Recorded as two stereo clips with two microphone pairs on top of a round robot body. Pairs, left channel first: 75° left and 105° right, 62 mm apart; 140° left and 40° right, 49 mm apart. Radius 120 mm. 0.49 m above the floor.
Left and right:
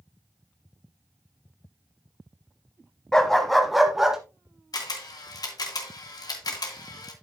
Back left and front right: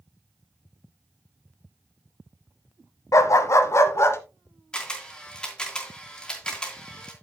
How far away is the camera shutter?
About 3 m.